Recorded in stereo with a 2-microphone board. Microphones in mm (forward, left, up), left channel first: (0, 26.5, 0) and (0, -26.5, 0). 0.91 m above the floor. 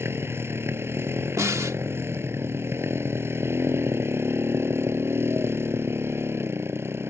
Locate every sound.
0.0 s a motorcycle: 50° right (ahead or behind)
1.4 s a snare drum: 75° right (ahead or behind)